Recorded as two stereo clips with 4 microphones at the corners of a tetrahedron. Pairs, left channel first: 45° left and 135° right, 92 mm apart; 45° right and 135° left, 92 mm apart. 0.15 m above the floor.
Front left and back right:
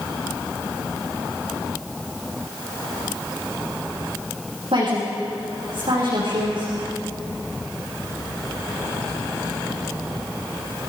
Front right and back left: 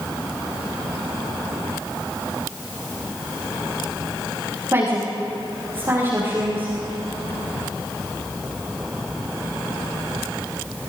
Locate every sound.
4.7 s a woman speaking: 160° right, 8 m